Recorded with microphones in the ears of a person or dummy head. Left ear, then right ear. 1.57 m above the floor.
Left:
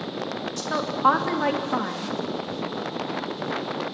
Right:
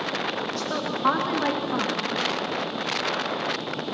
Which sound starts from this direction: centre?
A woman speaking, at 0.6 s.